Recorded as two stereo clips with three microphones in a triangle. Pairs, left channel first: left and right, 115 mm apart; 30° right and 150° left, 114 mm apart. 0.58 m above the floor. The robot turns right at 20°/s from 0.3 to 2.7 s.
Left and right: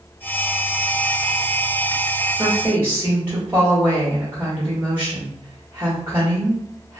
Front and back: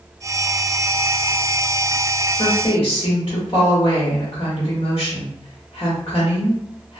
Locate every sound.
2.4 s a woman speaking: 30° right, 1.2 m; by 7.0 s 25° right, 1.2 m